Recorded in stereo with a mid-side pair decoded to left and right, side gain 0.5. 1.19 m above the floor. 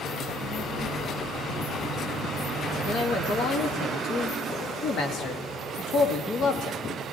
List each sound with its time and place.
0.1 s a child speaking: 65° left, 5.5 m; by 3.9 s 75° left, 7 m
2.9 s a man speaking: 60° left, 2 m